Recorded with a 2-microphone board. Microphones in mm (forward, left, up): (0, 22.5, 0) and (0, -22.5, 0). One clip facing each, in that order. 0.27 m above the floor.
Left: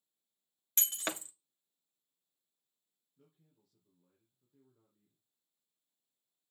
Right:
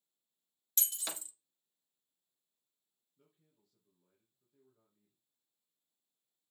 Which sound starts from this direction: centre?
A man speaking, at 3.2 s.